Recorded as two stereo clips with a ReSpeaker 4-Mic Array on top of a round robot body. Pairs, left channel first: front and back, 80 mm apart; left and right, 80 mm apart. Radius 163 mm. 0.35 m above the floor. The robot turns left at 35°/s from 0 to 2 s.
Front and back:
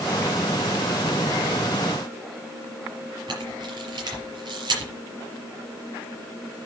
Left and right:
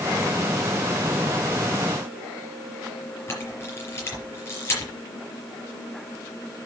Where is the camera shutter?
150° left, 5 m.